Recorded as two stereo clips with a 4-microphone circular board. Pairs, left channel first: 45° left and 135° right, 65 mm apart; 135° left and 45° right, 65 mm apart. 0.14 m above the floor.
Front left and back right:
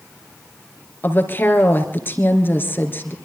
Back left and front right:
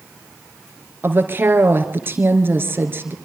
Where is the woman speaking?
Straight ahead, 2.5 m.